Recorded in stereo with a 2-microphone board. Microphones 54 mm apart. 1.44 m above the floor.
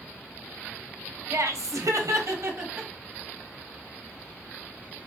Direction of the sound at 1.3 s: 65° right (ahead or behind).